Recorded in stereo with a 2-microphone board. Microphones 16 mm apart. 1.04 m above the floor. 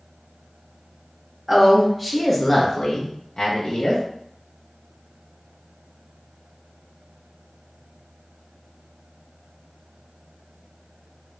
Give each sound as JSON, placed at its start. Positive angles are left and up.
{"t": 1.5, "sound": "a woman speaking", "side_deg": -15, "distance_m": 1.3}